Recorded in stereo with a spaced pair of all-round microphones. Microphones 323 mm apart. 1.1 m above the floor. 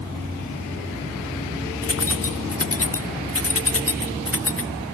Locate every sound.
1.8 s keys jangling: 45° left (ahead or behind), 0.7 m